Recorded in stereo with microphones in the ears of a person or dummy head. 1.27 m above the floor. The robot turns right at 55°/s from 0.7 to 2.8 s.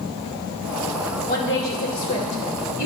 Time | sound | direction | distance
1.3 | a woman speaking | 45° left | 2 m